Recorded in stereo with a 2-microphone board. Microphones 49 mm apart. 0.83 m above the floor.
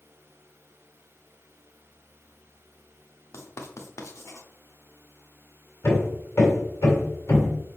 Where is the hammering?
70° left (ahead or behind), 2.5 m.